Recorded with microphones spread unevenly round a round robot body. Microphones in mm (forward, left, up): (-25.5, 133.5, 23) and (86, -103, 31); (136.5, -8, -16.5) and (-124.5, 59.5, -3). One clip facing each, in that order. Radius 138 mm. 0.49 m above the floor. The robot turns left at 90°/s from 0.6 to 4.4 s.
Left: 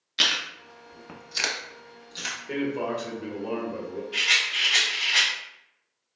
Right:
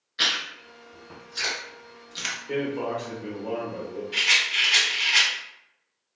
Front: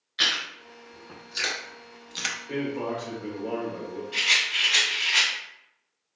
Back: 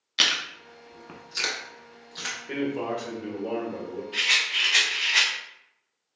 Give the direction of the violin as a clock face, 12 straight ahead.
I don't hear a violin.